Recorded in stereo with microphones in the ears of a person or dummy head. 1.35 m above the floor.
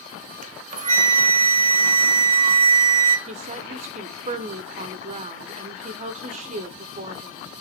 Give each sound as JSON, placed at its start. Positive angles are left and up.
{"t": 0.4, "sound": "a flute", "side_deg": -40, "distance_m": 0.7}
{"t": 3.3, "sound": "a woman speaking", "side_deg": -35, "distance_m": 0.6}